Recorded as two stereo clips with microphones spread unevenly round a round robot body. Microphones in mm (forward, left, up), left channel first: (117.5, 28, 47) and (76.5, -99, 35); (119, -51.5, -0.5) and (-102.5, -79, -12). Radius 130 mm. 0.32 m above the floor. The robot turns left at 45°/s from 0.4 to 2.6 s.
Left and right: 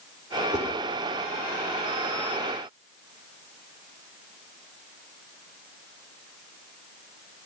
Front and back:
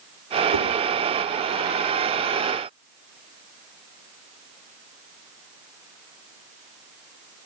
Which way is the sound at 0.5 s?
Straight behind.